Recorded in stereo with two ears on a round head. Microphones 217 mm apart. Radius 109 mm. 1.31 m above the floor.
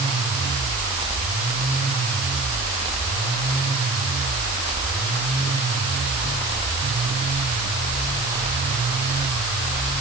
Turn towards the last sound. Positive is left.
No sound to turn to.